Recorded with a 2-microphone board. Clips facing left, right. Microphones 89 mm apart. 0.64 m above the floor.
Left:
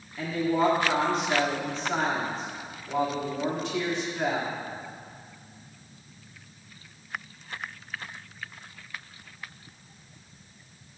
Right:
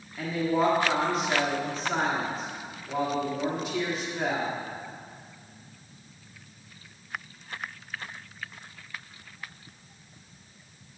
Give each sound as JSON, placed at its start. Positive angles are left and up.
{"t": 0.2, "sound": "a woman speaking", "side_deg": -5, "distance_m": 1.5}